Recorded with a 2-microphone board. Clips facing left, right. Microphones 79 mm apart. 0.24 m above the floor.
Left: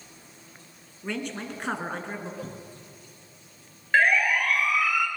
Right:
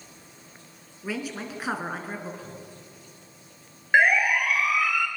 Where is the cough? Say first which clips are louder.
Left 2 dB; 65° left (ahead or behind), 5.5 m.